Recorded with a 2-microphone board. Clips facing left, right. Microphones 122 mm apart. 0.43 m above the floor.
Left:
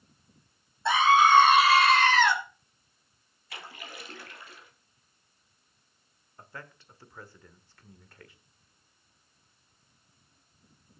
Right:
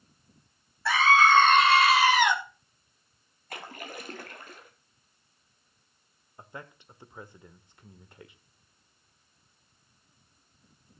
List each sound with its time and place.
0.8 s a scream: 20° left (ahead or behind), 3 m; by 2.4 s 20° right (ahead or behind), 2.5 m
3.5 s a splash: 50° right (ahead or behind), 2.5 m
6.4 s a man speaking: 20° right (ahead or behind), 1.1 m